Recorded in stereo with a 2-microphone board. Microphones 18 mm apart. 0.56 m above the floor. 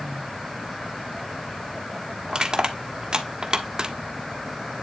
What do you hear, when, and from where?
2.3 s crushing: 45° right (ahead or behind), 1.3 m